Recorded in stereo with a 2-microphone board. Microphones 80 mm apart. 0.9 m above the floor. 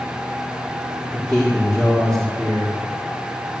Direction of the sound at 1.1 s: 10° left (ahead or behind).